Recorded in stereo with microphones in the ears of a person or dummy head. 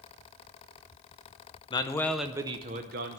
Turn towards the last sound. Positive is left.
turn(degrees=-55)  # may be behind; listen again after turning